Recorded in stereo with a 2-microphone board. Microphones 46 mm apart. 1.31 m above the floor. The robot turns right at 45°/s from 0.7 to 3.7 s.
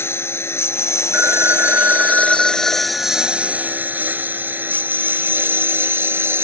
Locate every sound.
0.0 s a lawn mower: 65° left (ahead or behind); by 6.4 s 55° right (ahead or behind)
1.1 s a phone ringing: 65° right; by 4.0 s 50° left